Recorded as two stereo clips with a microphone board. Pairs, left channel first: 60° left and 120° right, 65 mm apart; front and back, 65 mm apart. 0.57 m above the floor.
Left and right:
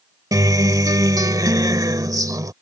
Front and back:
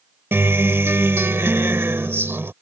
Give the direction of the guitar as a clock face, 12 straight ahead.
4 o'clock.